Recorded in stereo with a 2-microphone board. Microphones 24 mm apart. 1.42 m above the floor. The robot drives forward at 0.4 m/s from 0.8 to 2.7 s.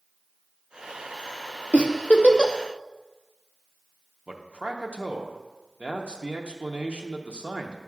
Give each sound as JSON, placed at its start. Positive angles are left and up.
{"t": 1.7, "sound": "a giggle", "side_deg": 65, "distance_m": 0.6}
{"t": 4.3, "sound": "a man speaking", "side_deg": -55, "distance_m": 0.8}